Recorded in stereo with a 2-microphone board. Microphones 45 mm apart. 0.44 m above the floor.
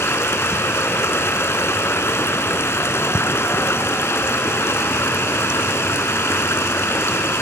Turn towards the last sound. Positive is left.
turn(degrees=85)